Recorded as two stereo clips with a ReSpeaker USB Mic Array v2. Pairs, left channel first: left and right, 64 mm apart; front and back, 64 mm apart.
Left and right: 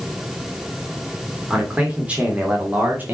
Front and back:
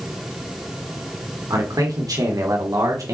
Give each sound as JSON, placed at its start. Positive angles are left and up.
{"t": 1.5, "sound": "a man speaking", "azimuth_deg": -165, "distance_m": 3.0}